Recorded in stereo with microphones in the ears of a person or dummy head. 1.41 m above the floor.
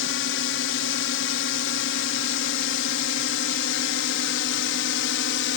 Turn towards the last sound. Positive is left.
turn(degrees=60)  # may be behind; listen again after turning